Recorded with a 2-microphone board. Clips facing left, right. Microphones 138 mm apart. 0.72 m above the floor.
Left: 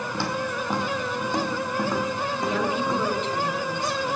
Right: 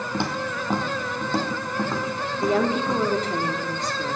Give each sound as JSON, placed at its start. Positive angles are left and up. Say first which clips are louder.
{"t": 0.1, "sound": "footsteps", "louder": "right 1 dB", "side_deg": -20, "distance_m": 1.5}
{"t": 2.4, "sound": "a woman speaking", "louder": "right 5 dB", "side_deg": -40, "distance_m": 1.2}